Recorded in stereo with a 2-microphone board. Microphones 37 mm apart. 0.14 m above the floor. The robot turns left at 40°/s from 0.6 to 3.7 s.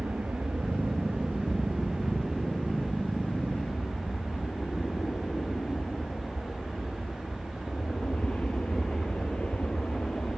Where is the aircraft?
65° right (ahead or behind); by 10.4 s 40° left (ahead or behind).